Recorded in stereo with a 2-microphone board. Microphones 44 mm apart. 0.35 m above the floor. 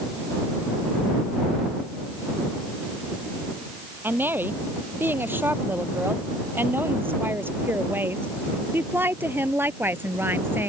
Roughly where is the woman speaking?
Right.